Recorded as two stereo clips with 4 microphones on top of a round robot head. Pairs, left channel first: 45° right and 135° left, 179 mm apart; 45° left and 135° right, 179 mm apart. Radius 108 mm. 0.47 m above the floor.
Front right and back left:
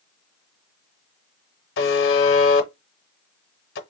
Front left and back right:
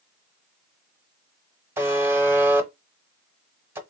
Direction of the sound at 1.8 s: 55° right.